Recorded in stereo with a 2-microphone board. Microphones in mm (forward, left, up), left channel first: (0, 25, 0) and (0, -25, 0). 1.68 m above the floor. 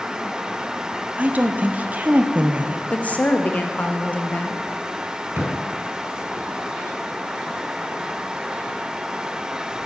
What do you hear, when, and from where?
1.2 s a woman speaking: 30° right (ahead or behind), 0.6 m
2.9 s a woman speaking: 30° left (ahead or behind), 0.7 m
5.4 s a thud: 55° right (ahead or behind), 4.5 m